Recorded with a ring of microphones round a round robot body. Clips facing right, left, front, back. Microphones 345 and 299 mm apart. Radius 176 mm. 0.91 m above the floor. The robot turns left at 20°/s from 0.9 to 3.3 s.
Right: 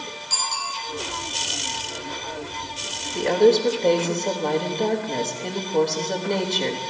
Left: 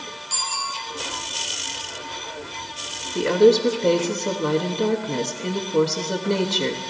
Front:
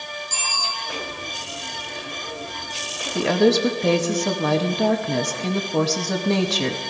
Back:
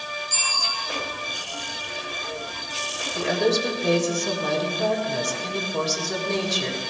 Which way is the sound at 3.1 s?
15° left.